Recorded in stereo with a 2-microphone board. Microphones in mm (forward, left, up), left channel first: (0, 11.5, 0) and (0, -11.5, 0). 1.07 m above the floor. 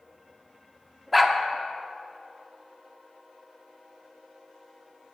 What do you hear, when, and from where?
1.1 s a dog barking: centre (ahead or behind), 0.8 m